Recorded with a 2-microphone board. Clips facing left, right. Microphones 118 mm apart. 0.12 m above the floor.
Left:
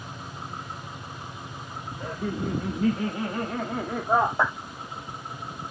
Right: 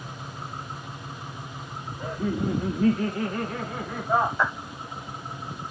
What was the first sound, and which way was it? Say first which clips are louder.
Laughter: right 3 dB; 15° right (ahead or behind).